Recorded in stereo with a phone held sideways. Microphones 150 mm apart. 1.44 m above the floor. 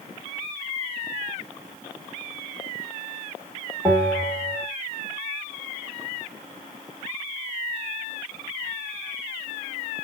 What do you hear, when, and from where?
3.9 s a bell: 5° left (ahead or behind), 1.1 m